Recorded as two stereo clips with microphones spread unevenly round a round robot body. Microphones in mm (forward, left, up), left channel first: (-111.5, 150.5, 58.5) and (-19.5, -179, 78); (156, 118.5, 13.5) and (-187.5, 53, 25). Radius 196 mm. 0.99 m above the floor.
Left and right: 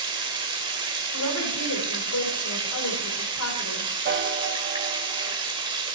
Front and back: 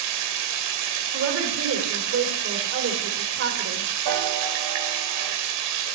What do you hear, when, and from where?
0.0 s running water: 150° right, 2 m
1.1 s a woman speaking: 140° left, 3.5 m
4.0 s a piano: 130° right, 0.8 m